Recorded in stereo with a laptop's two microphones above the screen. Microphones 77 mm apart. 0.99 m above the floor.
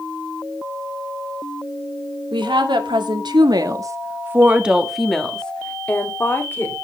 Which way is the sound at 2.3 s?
85° right.